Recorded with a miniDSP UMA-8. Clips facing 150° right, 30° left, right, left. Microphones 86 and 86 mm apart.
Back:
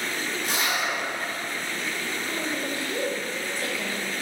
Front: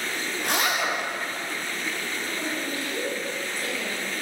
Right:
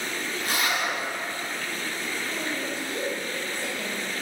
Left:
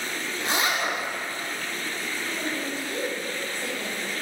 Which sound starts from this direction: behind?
A woman speaking, at 2.2 s.